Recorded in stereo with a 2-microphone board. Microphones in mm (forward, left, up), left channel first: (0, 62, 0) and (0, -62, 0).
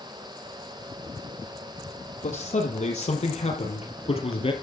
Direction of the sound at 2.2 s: 75° left (ahead or behind).